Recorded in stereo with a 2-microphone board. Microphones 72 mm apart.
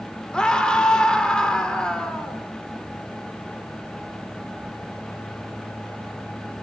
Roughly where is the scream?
Centre.